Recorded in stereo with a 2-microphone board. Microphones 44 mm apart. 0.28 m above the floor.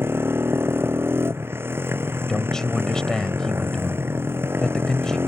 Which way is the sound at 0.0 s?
65° right (ahead or behind).